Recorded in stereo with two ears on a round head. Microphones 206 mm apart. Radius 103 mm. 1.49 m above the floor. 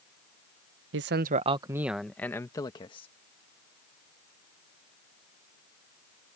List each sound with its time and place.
0.9 s a man speaking: 55° right (ahead or behind); by 3.1 s 25° left (ahead or behind)